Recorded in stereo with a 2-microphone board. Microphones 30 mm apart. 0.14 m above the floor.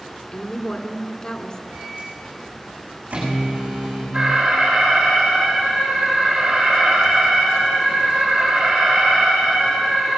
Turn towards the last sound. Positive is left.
turn(degrees=-50)  # may be behind; listen again after turning